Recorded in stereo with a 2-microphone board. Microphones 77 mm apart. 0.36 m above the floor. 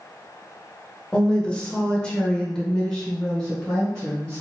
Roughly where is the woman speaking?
Centre.